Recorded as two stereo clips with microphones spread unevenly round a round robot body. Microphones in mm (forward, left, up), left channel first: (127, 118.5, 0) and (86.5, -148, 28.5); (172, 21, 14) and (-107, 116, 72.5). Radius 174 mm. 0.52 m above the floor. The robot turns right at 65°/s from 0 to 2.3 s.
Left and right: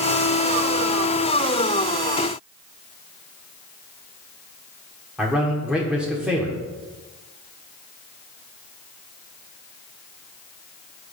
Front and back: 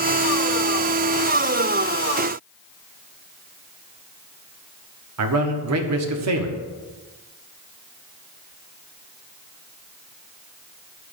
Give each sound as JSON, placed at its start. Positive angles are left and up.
{"t": 5.2, "sound": "a man speaking", "azimuth_deg": 170, "distance_m": 1.2}